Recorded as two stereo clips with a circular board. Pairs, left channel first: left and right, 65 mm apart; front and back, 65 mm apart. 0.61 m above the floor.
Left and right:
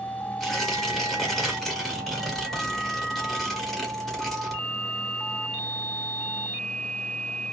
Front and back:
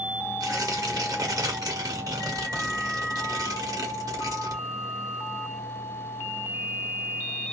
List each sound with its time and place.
0.4 s tearing paper: 175° left, 1.5 m